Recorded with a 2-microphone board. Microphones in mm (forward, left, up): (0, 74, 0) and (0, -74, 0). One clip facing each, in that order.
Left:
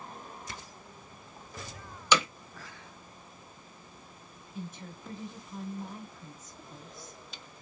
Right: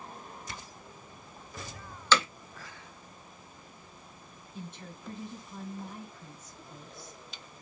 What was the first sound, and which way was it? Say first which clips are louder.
Hammering: even; 15° left (ahead or behind).